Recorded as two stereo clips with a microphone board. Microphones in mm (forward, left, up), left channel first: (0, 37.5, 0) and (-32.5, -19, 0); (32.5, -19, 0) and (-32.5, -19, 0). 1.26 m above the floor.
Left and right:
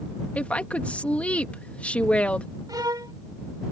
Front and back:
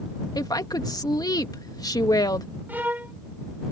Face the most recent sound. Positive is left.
turn(degrees=-115)